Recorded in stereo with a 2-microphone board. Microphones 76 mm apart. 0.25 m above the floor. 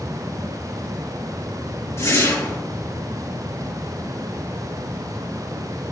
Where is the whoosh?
40° left (ahead or behind), 3 m.